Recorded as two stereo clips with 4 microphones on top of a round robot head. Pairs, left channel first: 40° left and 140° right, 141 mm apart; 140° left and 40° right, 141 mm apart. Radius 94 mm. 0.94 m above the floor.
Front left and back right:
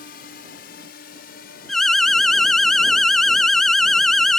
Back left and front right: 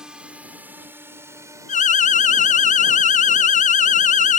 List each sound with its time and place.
0.0 s a drone: 40° left; by 4.4 s 15° left
1.7 s an alarm: 130° left